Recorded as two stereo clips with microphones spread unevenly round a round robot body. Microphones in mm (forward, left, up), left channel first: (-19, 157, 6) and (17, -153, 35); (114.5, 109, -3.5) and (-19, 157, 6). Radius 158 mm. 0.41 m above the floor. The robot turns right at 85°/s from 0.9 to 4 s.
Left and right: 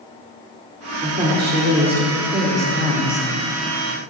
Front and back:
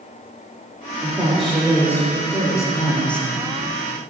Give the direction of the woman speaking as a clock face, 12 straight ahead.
5 o'clock.